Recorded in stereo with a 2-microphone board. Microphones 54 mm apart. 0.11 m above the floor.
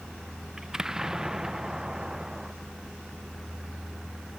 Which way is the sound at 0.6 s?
10° right (ahead or behind).